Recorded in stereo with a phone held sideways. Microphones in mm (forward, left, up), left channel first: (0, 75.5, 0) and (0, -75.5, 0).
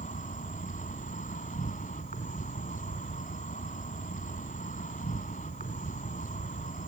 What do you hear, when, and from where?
0.0 s an insect: 70° left (ahead or behind), 1.9 m